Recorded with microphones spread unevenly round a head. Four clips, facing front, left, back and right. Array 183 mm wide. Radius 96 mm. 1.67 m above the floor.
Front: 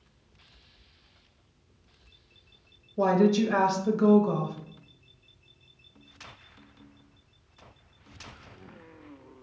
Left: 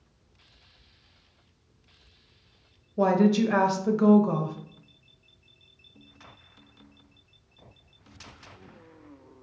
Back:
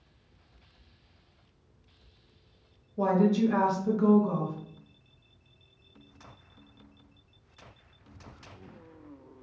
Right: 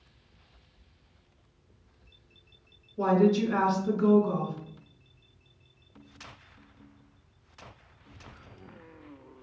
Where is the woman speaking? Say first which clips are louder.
Left 2 dB, front 2 dB; 55° left, 0.8 m.